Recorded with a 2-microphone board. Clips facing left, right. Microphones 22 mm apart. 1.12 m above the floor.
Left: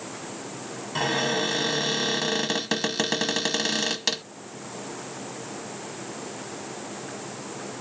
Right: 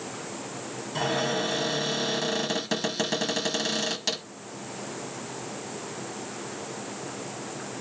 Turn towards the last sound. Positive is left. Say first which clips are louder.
# left 2 dB
turn(degrees=20)  # may be behind; listen again after turning